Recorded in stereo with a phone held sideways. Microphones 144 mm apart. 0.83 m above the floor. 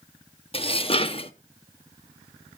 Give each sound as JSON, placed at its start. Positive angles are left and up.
{"t": 0.5, "sound": "dishes clattering", "side_deg": 40, "distance_m": 0.7}